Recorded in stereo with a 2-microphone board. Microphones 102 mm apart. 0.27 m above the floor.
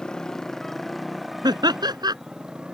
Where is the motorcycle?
5° left (ahead or behind); by 2.7 s 10° right (ahead or behind).